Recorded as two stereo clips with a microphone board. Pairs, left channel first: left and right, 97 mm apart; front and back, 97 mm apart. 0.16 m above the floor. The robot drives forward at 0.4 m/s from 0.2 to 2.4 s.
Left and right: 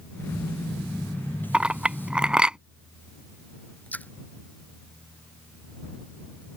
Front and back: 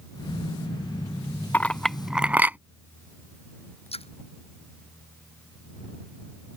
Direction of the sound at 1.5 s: 30° right.